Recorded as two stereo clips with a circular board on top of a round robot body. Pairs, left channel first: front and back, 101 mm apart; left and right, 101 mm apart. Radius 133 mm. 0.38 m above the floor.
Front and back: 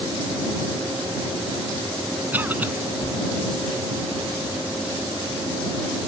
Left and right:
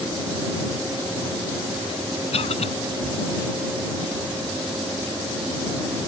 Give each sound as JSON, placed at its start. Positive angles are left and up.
{"t": 2.3, "sound": "a cough", "azimuth_deg": 105}